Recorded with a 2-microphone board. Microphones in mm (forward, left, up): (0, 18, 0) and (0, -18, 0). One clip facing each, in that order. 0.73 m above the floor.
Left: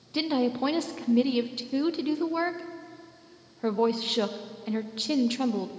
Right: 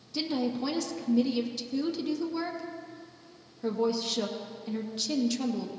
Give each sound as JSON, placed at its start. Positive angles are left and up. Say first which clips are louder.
{"t": 0.1, "sound": "a woman speaking", "louder": "left 4 dB", "side_deg": 35, "distance_m": 0.5}